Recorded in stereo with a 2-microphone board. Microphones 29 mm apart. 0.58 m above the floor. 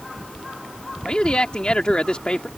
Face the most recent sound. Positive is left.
turn(degrees=35)  # may be behind; listen again after turning